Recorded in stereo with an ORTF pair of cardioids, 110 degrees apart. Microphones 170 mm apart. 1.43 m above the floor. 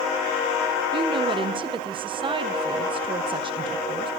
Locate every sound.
0.9 s a woman speaking: 30° right, 1.4 m